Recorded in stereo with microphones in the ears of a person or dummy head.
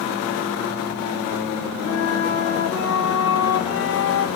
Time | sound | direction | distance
1.8 | a flute | 70° left (ahead or behind) | 1.9 m